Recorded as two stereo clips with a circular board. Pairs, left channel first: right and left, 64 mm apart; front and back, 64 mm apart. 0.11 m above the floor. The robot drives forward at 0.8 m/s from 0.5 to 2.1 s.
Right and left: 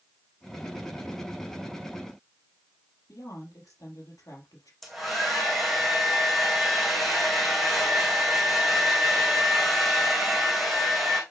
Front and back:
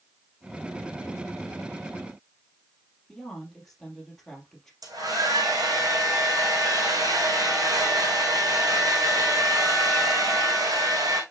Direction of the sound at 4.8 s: Straight behind.